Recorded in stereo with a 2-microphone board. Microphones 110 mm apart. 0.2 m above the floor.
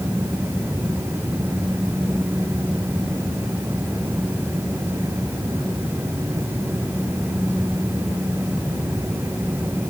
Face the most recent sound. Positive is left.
No sound to turn to.